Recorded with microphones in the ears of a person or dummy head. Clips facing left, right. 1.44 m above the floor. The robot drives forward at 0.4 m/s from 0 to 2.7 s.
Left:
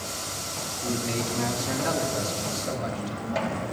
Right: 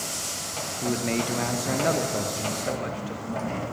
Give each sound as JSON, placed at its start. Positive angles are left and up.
{"t": 0.8, "sound": "a man speaking", "side_deg": -60, "distance_m": 0.9}